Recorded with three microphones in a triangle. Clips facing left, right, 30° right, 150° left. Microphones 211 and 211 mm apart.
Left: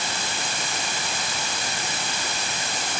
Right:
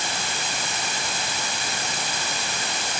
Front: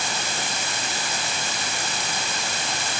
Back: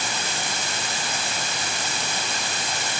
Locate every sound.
Only background noise.